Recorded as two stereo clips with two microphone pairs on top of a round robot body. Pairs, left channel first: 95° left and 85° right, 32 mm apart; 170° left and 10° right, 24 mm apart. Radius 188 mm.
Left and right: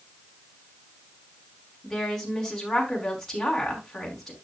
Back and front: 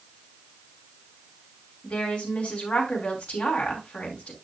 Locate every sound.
1.8 s a woman speaking: 175° left, 5 m